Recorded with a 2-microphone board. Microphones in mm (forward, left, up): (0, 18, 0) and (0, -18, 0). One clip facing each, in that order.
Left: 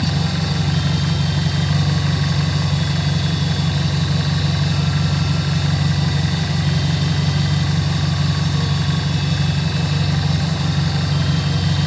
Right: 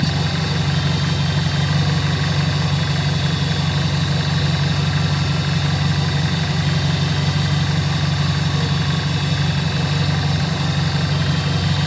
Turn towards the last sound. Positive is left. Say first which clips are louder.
# even
turn(degrees=-15)  # may be behind; listen again after turning